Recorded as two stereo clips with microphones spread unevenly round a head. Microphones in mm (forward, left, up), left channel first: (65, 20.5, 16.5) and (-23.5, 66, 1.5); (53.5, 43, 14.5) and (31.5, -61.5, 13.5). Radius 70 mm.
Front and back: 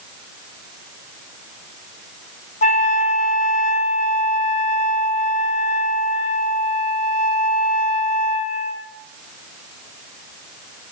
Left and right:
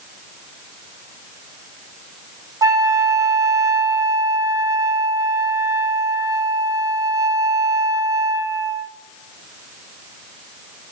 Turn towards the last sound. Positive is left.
turn(degrees=-45)